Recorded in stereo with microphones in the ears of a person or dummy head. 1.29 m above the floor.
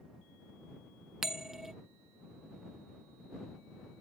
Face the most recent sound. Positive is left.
turn(degrees=0)  # may be behind; listen again after turning